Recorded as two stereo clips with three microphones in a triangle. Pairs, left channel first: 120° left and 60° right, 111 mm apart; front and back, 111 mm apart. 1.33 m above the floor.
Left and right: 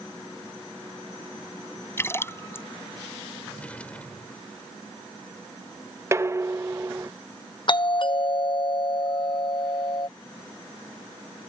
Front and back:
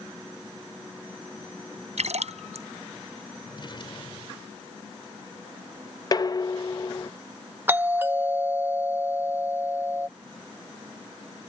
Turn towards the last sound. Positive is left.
turn(degrees=115)